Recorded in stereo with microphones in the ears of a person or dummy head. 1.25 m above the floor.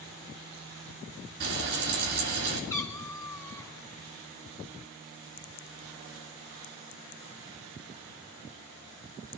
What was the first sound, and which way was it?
Frying, 65° right (ahead or behind).